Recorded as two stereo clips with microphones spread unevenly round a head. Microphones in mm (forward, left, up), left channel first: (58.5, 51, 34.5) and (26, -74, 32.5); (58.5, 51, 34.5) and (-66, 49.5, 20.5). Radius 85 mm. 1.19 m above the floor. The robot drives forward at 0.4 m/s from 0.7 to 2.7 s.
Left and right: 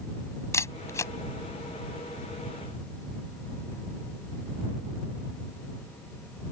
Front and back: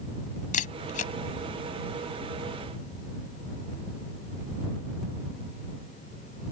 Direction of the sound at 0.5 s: 10° left.